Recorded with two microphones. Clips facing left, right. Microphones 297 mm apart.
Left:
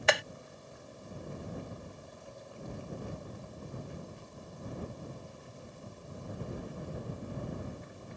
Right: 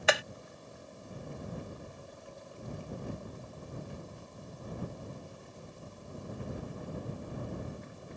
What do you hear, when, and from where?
0.1 s hammering: centre (ahead or behind)